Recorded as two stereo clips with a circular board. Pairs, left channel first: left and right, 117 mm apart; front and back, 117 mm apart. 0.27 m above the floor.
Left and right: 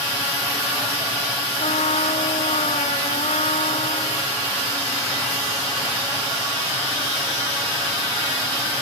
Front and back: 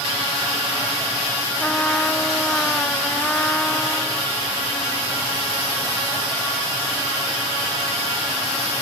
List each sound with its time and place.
1.6 s a trumpet: 80° left